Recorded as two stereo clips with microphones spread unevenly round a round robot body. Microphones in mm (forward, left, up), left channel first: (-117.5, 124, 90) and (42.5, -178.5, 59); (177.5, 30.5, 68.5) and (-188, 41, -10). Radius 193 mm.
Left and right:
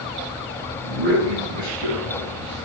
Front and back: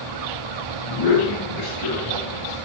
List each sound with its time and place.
0.8 s a man speaking: 40° right, 8 m; by 2.6 s 45° right, 6.5 m